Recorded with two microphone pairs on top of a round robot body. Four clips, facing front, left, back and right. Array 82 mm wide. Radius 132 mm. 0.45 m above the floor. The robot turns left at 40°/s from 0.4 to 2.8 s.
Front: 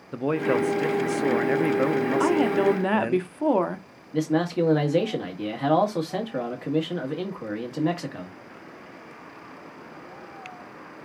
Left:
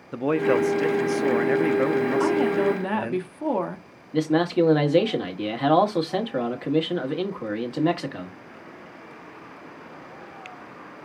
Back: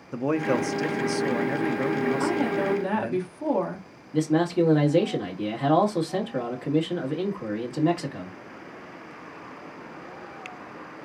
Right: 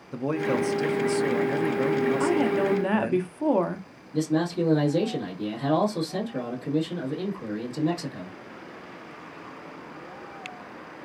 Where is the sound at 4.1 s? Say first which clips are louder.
Left 4 dB, back 1 dB; 95° left, 1.6 m.